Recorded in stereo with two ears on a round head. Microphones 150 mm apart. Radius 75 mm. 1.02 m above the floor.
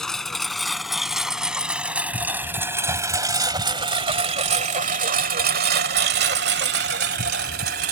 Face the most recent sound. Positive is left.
turn(degrees=-60)  # may be behind; listen again after turning